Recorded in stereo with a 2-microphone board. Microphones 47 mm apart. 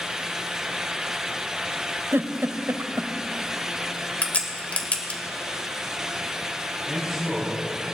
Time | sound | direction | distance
2.1 | a giggle | 65° right (ahead or behind) | 0.7 m
4.2 | a crack | 30° left (ahead or behind) | 1.8 m
6.9 | a man speaking | centre (ahead or behind) | 5.5 m